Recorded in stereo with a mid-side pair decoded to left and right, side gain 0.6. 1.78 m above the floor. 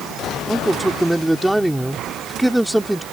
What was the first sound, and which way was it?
A man speaking, 5° right.